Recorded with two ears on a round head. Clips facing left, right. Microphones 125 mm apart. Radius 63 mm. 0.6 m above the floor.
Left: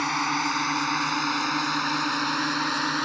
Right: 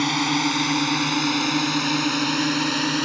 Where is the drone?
30° right (ahead or behind); by 3.0 s 25° right (ahead or behind).